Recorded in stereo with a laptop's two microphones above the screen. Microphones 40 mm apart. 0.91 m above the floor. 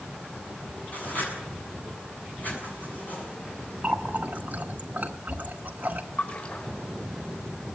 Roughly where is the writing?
Left.